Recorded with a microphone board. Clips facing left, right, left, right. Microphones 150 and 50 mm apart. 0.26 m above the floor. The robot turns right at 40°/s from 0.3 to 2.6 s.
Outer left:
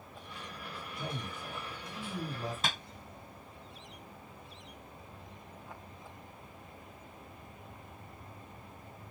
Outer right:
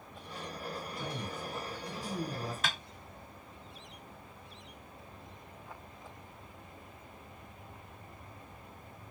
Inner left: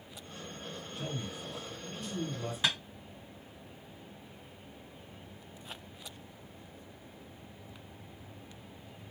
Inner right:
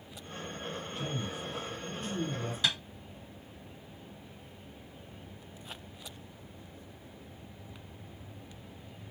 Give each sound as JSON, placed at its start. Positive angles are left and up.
{"t": 1.0, "sound": "a man speaking", "side_deg": 20, "distance_m": 1.4}
{"t": 2.6, "sound": "tapping", "side_deg": 25, "distance_m": 2.0}